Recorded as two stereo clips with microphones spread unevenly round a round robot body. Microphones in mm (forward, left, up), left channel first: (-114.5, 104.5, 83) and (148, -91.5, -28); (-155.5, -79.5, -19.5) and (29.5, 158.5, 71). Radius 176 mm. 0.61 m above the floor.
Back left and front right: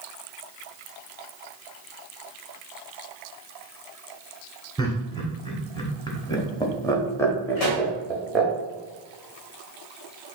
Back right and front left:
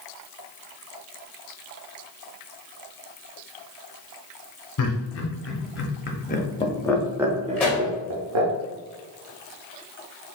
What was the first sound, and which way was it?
Laughter, 130° right.